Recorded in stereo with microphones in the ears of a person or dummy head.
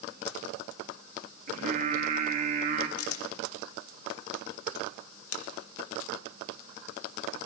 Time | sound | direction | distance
1.5 | singing | 45° right (ahead or behind) | 1.2 m
3.0 | a camera shutter | 85° left | 1.3 m